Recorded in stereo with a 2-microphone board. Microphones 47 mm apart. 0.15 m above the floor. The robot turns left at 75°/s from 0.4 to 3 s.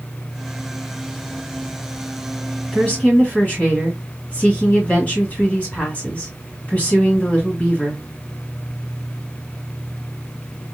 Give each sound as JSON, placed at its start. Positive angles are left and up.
{"t": 2.7, "sound": "a woman speaking", "side_deg": 20, "distance_m": 1.6}